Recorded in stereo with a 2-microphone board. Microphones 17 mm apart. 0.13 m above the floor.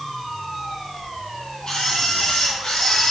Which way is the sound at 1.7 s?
65° left (ahead or behind).